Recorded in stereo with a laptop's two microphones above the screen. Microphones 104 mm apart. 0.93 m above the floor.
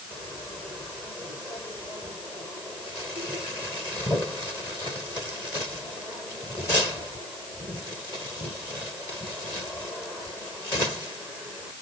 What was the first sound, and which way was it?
Only background noise.